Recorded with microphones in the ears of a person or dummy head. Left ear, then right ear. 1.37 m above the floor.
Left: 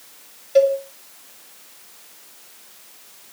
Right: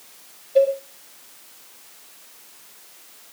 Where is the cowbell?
70° left (ahead or behind), 3 m.